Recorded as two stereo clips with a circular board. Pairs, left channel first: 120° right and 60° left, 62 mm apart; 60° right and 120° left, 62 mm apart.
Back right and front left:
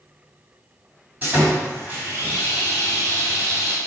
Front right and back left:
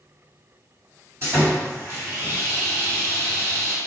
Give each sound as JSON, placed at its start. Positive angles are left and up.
{"t": 1.2, "sound": "sawing", "azimuth_deg": 100, "distance_m": 1.5}